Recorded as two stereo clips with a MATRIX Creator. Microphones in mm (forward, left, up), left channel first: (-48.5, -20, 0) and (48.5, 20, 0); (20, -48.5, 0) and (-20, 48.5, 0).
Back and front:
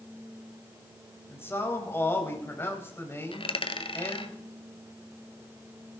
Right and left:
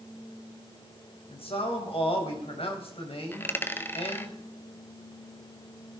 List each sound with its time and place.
1.3 s a man speaking: 90° right, 3.5 m
3.3 s a dropped coin: 135° right, 1.2 m